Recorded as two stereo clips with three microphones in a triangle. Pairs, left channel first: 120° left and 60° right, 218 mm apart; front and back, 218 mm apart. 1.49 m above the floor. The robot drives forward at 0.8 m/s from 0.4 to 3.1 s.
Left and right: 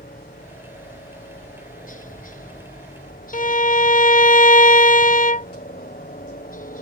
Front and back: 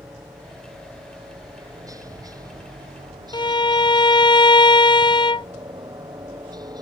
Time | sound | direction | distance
0.0 | a helicopter | 110° left | ?
3.3 | a violin | 65° left | ?